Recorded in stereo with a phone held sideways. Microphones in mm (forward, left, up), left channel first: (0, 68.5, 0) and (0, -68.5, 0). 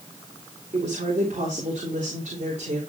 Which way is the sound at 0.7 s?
60° right (ahead or behind).